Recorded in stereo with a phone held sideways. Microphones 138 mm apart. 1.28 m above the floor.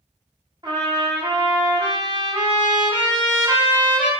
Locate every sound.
0.6 s a trumpet: 35° right (ahead or behind), 1.0 m